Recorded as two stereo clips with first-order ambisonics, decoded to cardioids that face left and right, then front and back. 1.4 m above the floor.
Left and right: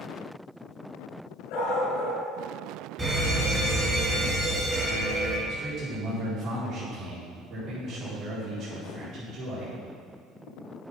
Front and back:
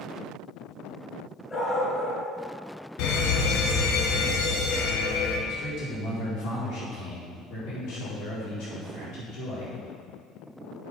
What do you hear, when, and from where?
1.5 s a dog barking: 75° left, 3.5 m
3.0 s a fire alarm: 10° right, 1.9 m
5.5 s a man speaking: 30° right, 4.5 m